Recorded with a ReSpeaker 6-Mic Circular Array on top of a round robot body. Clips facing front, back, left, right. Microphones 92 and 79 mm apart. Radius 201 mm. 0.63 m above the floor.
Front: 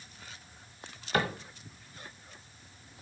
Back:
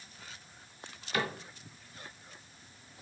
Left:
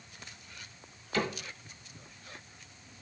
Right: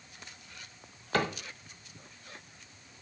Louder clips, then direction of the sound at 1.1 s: Front 4 dB, right 2 dB; 50° right.